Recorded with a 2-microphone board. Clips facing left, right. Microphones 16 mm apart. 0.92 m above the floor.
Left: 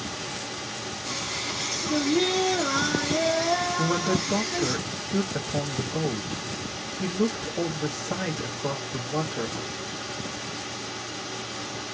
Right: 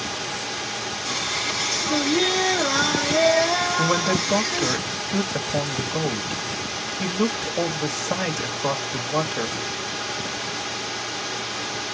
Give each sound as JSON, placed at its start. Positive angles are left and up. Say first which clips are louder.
{"t": 0.0, "sound": "running water", "louder": "right 5 dB", "side_deg": -35, "distance_m": 1.0}
{"t": 1.1, "sound": "singing", "louder": "right 5 dB", "side_deg": -25, "distance_m": 1.2}
{"t": 3.8, "sound": "a man speaking", "louder": "right 4 dB", "side_deg": -50, "distance_m": 1.9}